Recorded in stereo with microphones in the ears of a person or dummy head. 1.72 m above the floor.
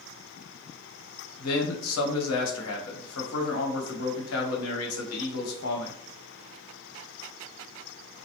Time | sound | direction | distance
1.4 | a man speaking | 80° left | 1.2 m